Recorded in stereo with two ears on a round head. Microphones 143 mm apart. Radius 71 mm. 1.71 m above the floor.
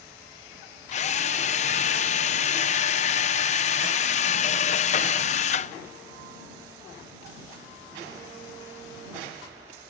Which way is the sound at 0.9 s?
45° left (ahead or behind).